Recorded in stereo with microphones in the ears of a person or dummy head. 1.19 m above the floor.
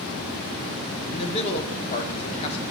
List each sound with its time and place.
1.1 s a man speaking: 35° left (ahead or behind), 0.8 m